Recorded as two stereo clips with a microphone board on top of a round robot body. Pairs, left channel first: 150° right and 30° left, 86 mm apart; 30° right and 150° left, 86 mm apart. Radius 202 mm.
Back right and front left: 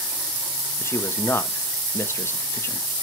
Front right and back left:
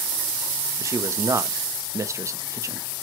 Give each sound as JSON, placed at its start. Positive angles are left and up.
{"t": 0.8, "sound": "a man speaking", "azimuth_deg": 170, "distance_m": 1.4}